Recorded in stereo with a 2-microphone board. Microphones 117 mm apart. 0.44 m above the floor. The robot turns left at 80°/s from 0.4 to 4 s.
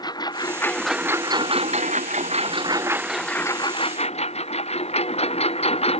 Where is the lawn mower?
35° left (ahead or behind); by 6.0 s 55° left (ahead or behind).